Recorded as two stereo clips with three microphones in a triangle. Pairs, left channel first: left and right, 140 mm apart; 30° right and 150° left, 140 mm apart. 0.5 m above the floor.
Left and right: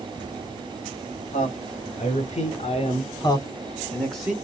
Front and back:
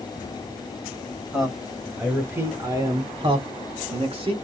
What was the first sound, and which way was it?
A man speaking, 65° left.